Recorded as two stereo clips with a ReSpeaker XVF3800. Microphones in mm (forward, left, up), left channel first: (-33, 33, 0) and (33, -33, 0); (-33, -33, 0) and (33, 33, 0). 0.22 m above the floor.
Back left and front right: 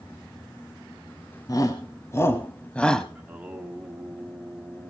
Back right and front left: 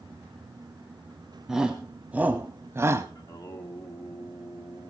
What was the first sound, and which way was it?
A shout, 125° left.